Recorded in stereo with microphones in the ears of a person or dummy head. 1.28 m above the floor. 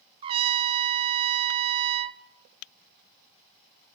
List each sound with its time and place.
0.2 s a trumpet: 30° right (ahead or behind), 0.6 m